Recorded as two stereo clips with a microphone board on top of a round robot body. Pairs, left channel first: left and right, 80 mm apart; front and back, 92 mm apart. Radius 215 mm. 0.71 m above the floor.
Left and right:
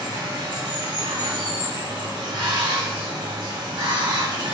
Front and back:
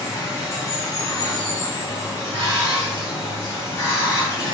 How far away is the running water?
About 1.6 m.